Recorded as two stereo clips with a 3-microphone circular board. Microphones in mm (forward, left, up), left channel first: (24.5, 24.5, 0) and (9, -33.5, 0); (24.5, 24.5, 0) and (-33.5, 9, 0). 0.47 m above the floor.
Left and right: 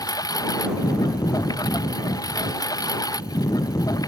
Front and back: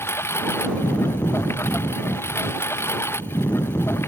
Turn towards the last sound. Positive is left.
turn(degrees=65)